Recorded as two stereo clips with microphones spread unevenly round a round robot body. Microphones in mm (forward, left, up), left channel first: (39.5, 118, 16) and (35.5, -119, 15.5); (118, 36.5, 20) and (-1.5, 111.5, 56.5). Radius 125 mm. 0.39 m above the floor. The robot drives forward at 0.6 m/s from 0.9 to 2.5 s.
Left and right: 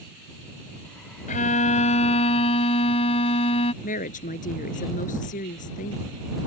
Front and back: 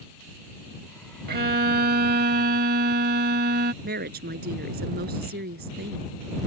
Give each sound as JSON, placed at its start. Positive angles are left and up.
{"t": 1.3, "sound": "a violin", "azimuth_deg": 150}
{"t": 3.8, "sound": "a woman speaking", "azimuth_deg": 150}